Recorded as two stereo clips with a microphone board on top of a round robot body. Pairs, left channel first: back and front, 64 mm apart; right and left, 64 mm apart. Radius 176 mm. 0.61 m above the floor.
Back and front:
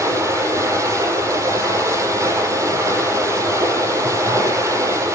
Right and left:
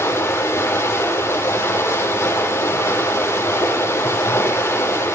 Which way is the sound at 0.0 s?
40° right.